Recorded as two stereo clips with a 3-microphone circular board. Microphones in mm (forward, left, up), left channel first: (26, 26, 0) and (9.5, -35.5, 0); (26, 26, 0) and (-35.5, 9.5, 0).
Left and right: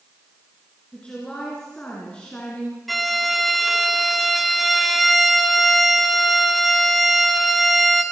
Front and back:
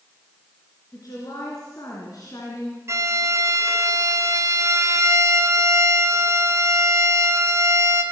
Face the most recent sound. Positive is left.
turn(degrees=165)